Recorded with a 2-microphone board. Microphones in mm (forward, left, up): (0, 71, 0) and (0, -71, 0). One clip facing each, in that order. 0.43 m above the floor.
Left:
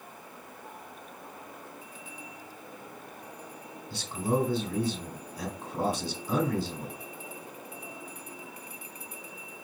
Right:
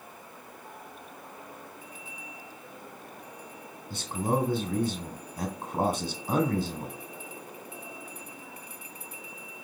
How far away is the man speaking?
About 2.5 m.